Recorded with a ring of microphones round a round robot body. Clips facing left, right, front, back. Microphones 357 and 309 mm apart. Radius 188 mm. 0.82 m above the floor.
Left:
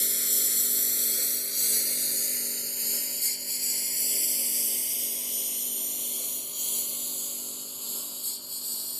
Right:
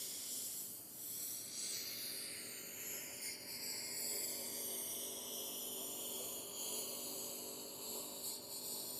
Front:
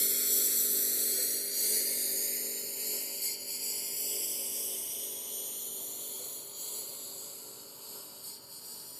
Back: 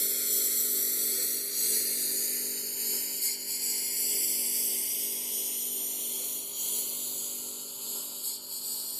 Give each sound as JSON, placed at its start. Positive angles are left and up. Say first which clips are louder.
{"t": 0.0, "sound": "a lawn mower", "louder": "left 16 dB, even", "azimuth_deg": 90}